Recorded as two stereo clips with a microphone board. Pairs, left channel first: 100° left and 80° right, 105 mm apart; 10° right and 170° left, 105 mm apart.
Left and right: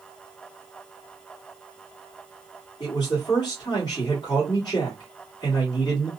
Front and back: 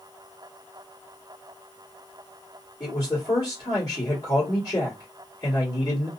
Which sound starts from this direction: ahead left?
A man speaking, at 2.8 s.